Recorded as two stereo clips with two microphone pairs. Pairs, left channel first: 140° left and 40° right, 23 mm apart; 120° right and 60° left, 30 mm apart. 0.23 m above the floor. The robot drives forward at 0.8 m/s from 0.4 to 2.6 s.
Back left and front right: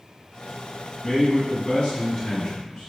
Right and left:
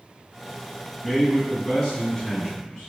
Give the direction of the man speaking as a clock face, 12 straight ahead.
7 o'clock.